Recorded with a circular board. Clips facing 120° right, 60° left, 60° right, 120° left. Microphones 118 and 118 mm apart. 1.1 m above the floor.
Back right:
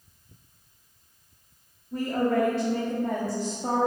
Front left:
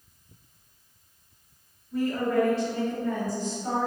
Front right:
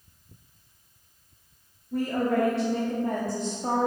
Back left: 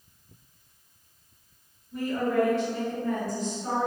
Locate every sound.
1.9 s a woman speaking: 75° right, 2 m; by 3.9 s 105° right, 1.7 m